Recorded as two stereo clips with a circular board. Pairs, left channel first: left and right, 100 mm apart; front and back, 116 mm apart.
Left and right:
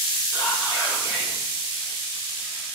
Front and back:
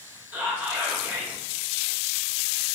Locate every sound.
0.3 s whispering: 115° left, 1.5 m